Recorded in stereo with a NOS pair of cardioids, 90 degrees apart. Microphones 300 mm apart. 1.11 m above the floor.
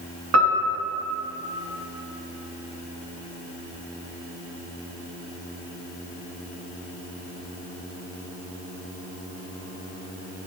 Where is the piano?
55° right, 1.3 m.